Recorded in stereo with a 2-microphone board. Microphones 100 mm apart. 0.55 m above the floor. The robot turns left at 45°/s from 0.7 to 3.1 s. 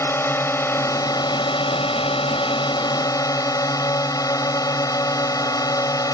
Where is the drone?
150° left; by 6.2 s 40° left.